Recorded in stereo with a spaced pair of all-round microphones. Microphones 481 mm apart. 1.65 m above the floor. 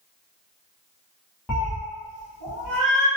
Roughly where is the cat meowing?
Centre.